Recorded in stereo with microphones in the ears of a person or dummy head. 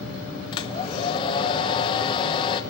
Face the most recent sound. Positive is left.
turn(degrees=30)  # may be behind; listen again after turning